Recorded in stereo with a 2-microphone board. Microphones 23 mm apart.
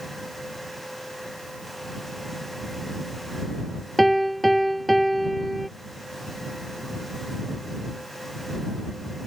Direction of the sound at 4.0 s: 5° left (ahead or behind).